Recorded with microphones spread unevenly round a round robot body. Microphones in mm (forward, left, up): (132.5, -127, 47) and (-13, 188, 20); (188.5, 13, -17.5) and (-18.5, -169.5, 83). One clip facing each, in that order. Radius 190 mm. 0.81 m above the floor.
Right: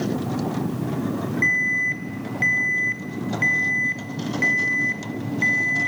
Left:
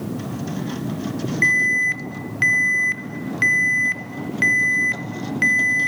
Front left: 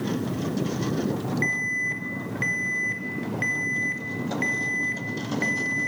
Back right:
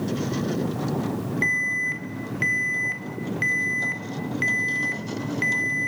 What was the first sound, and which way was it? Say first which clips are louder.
An alarm: left 1 dB, even; 125° left.